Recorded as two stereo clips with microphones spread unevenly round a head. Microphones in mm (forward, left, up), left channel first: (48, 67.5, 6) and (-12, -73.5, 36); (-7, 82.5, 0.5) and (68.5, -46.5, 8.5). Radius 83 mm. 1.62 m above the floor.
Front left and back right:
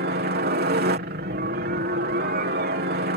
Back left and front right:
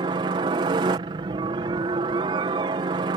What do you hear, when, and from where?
0.0 s a helicopter: 120° right